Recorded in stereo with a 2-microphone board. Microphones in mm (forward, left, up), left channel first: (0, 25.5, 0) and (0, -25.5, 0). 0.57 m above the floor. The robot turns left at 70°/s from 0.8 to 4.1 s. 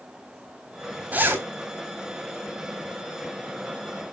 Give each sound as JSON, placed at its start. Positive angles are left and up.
{"t": 1.1, "sound": "a zipper", "side_deg": -35, "distance_m": 3.5}